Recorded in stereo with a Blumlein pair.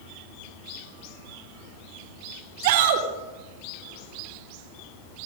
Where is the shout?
50° right, 3.5 m.